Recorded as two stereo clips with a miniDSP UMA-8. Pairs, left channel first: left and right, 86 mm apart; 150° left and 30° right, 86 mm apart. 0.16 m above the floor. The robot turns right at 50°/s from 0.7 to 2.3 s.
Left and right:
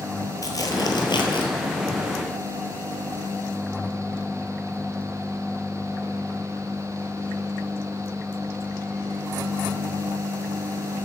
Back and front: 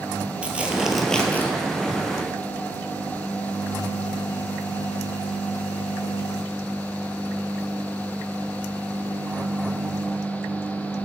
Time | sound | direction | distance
0.4 | tearing paper | 45° left | 0.9 m